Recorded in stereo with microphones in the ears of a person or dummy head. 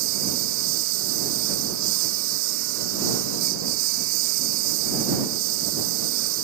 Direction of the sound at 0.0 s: 75° right (ahead or behind).